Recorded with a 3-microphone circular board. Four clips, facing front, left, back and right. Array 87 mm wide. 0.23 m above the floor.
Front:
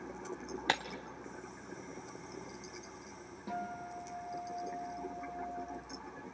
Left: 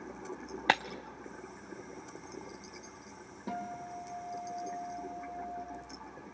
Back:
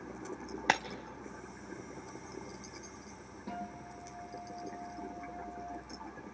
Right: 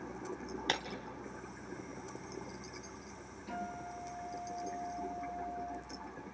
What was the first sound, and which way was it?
Breaking glass, 115° left.